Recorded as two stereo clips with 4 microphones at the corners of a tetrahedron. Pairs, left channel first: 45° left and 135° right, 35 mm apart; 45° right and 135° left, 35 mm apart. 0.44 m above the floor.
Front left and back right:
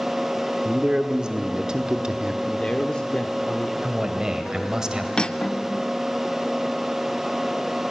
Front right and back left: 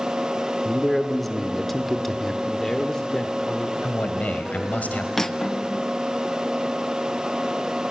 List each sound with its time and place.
0.7 s a man speaking: 120° right, 1.3 m
2.4 s a man speaking: 15° left, 1.1 m
3.8 s a man speaking: 70° right, 2 m
5.2 s cutlery clinking: 20° left, 0.5 m